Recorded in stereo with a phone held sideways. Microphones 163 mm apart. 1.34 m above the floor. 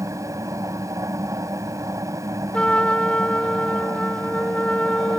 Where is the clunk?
I don't hear a clunk.